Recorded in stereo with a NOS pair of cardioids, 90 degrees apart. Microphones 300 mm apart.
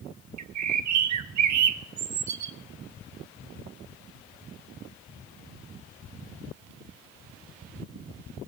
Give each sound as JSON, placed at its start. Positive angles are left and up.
{"t": 0.4, "sound": "a bird", "azimuth_deg": -65, "distance_m": 0.9}